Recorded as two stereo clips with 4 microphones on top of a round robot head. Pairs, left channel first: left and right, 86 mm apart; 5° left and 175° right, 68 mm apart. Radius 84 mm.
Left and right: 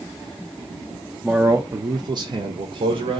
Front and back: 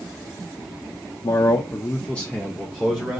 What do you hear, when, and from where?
1.2 s a man speaking: 15° right, 0.6 m; by 3.2 s 100° right, 1.0 m